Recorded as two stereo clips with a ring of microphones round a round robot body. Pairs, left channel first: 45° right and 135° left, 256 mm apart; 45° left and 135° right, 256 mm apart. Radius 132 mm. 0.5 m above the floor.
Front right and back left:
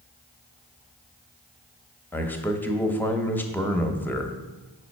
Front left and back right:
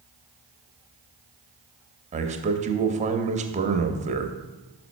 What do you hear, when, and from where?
2.1 s a man speaking: 120° right, 0.7 m